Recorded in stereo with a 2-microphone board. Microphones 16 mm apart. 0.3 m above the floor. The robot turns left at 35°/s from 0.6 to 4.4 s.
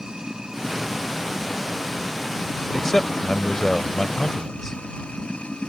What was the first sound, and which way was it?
Running water, 135° right.